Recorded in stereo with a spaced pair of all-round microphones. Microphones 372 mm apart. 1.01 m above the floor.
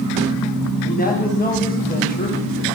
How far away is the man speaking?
About 1.3 m.